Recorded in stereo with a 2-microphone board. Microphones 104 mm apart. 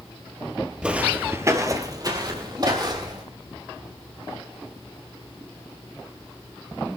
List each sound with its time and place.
0.8 s footsteps: 10° right (ahead or behind), 1.5 m; by 3.2 s 45° right (ahead or behind), 3 m